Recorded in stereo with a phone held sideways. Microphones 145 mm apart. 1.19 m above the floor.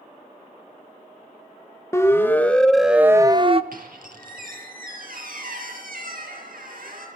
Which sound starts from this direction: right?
A squeak, at 3.7 s.